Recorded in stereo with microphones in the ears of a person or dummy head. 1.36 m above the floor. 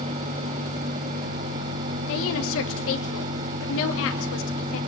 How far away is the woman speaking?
About 2.5 m.